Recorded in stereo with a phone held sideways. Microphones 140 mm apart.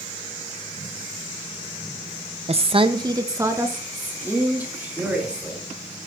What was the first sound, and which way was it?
A woman speaking, 45° right (ahead or behind).